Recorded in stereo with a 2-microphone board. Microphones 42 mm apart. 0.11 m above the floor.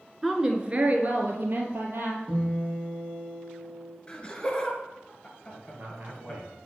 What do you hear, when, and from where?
0.2 s a woman speaking: 5° right (ahead or behind), 1.2 m; by 2.2 s 55° right (ahead or behind), 3 m
2.3 s a guitar: 15° right (ahead or behind), 5 m
4.1 s laughter: 25° left (ahead or behind), 2 m
5.5 s a man speaking: 45° right (ahead or behind), 2.5 m